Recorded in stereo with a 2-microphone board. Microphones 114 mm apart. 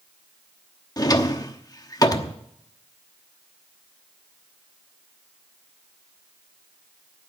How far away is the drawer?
About 1.0 m.